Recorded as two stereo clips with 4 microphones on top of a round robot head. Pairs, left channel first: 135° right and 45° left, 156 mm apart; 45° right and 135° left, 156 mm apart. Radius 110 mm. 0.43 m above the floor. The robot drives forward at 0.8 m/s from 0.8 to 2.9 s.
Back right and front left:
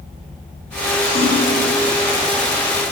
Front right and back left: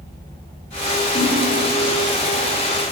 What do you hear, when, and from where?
1.1 s a splash: 100° right, 1.0 m; by 1.4 s 120° right, 1.0 m